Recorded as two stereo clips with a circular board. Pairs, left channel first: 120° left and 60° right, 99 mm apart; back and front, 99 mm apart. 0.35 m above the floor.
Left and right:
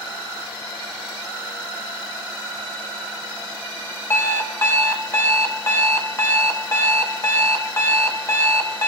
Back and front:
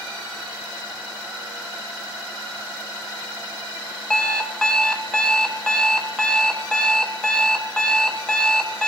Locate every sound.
4.1 s an alarm clock: 110° left, 0.6 m